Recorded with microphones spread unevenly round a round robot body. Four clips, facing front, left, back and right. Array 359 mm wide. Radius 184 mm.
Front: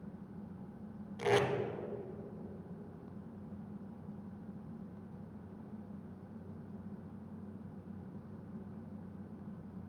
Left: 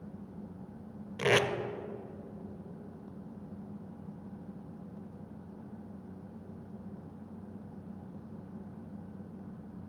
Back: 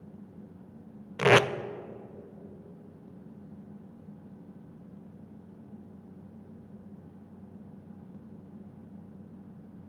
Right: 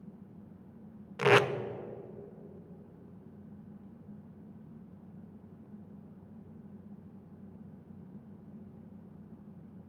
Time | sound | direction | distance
1.2 | tape being pulled | 175° right | 0.5 m